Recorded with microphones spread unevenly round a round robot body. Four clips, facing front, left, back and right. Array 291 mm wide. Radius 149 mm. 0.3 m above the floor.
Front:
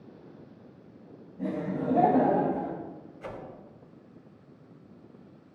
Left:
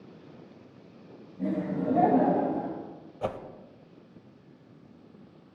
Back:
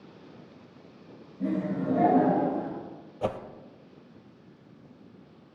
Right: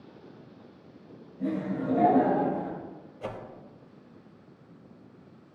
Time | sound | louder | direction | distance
1.4 | laughter | left 1 dB, back 2 dB | 40° left | 3 m
3.2 | a whoosh | left 5 dB, back 10 dB | 150° left | 0.6 m